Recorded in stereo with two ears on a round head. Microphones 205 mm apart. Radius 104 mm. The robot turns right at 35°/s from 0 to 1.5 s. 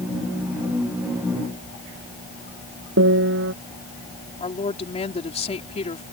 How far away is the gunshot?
No gunshot in this recording.